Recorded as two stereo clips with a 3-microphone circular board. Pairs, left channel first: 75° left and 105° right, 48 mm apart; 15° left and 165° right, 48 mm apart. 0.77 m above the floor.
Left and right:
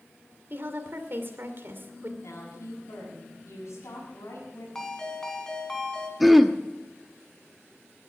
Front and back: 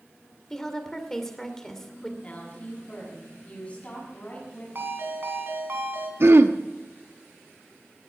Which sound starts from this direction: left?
A woman speaking, at 2.2 s.